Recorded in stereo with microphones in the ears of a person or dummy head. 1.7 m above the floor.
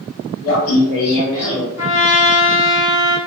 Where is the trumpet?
25° left (ahead or behind), 0.7 m.